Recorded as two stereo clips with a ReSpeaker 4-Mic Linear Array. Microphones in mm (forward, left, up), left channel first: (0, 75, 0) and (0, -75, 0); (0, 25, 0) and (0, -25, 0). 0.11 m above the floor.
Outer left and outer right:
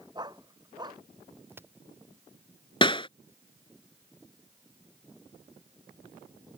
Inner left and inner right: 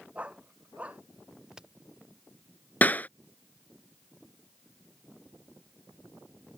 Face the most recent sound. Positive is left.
turn(degrees=30)  # may be behind; listen again after turning